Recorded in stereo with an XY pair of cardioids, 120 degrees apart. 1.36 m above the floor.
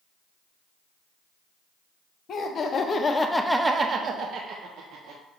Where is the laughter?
50° left, 1.0 m; by 5.2 s 80° right, 1.2 m.